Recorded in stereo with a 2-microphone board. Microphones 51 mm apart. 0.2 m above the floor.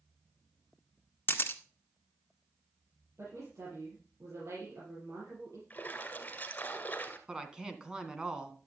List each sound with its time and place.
1.3 s a camera shutter: 45° left (ahead or behind), 1.2 m
3.2 s a woman speaking: 65° right (ahead or behind), 6 m
5.7 s a splash: 30° left (ahead or behind), 1.9 m
7.3 s a woman speaking: 15° right (ahead or behind), 1.8 m